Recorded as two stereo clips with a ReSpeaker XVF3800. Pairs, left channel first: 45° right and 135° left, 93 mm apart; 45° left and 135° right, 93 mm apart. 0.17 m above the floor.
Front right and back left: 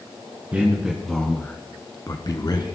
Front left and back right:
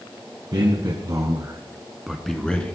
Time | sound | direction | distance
0.5 | a man speaking | 155° right | 1.8 m